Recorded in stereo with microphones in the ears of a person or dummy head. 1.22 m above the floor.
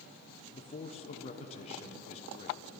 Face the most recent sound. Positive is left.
turn(degrees=40)  # may be behind; listen again after turning